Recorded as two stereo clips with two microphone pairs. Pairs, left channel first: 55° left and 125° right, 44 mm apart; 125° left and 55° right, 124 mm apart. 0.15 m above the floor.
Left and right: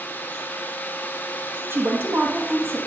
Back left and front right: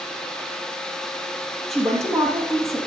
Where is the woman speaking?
145° right, 3.5 m.